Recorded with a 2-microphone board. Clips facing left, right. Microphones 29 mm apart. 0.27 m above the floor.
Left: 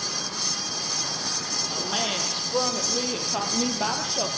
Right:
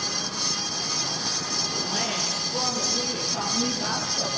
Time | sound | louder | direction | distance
1.7 | a woman speaking | left 3 dB | 45° left (ahead or behind) | 7.5 m